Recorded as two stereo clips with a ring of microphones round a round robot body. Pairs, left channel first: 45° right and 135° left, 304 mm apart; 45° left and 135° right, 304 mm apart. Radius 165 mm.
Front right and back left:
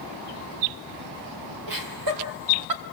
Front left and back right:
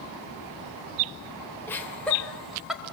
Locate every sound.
1.7 s laughter: 130° left, 3 m; by 2.8 s 135° left, 2.5 m